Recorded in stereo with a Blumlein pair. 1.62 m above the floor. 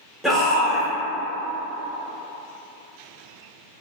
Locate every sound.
0.2 s a shout: 5° left, 1.4 m